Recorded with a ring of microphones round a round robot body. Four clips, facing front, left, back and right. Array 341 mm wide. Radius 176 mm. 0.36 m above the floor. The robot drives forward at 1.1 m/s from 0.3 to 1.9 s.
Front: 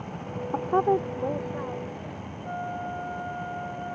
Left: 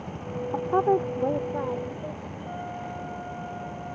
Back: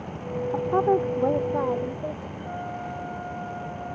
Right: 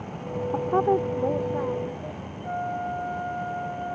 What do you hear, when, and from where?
0.5 s a woman speaking: 5° left; by 2.3 s straight behind
2.4 s a flute: 85° right